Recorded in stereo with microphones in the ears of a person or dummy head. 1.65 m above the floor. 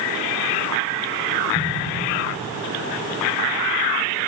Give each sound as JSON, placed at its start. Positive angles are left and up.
{"t": 1.5, "sound": "an explosion", "side_deg": -65, "distance_m": 1.3}